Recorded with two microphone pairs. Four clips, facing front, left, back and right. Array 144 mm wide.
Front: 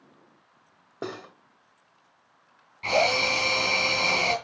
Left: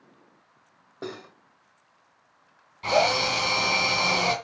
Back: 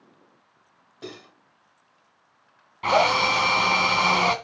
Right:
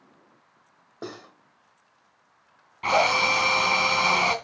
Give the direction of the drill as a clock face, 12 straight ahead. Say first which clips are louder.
Right 1 dB, back 4 dB; 5 o'clock.